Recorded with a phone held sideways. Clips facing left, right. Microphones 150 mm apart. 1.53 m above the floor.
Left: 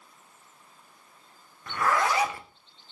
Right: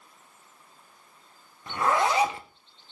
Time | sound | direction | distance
1.7 | a zipper | 25° right (ahead or behind) | 0.8 m